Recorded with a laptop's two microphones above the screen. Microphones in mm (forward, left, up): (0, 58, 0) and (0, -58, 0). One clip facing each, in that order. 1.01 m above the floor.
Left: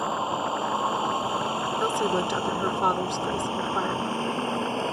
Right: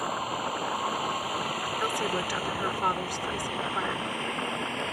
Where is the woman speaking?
25° left (ahead or behind).